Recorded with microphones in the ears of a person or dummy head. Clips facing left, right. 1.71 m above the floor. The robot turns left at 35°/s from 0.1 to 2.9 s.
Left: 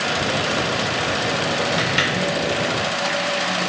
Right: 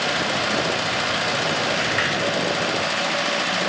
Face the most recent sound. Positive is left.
turn(degrees=20)